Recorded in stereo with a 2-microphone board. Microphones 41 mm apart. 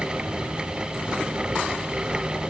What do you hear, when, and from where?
Only background noise.